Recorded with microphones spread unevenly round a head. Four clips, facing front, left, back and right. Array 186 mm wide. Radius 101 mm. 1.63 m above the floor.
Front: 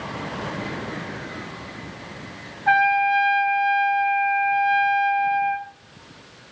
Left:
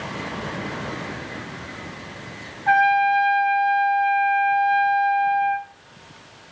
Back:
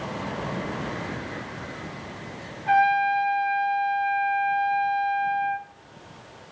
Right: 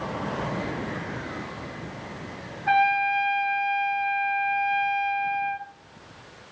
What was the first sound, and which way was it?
A trumpet, 55° left.